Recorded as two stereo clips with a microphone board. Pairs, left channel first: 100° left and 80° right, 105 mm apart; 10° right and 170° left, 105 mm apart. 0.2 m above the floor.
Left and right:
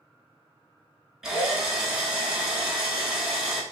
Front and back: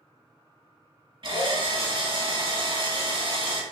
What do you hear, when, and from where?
1.2 s a drill: 165° right, 0.8 m